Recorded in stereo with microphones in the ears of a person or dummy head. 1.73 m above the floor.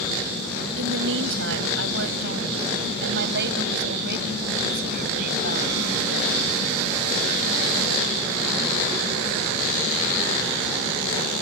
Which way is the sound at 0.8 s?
75° right (ahead or behind).